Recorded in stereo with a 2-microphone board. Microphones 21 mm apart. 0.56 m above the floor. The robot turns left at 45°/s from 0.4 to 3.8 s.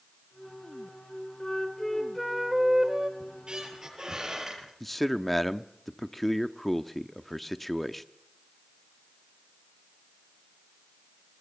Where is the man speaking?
5° left (ahead or behind), 0.7 m.